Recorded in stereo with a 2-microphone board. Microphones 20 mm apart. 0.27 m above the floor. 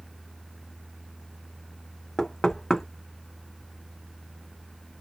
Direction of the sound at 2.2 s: 25° left (ahead or behind).